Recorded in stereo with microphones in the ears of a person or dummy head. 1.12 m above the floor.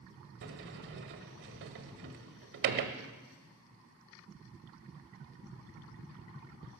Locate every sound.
0.4 s a sliding door: 55° right (ahead or behind), 1.3 m